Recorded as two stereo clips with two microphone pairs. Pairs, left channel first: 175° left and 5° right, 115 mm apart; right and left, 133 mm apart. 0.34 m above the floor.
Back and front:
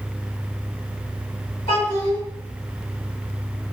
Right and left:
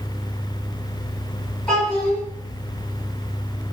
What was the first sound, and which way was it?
A child speaking, 170° right.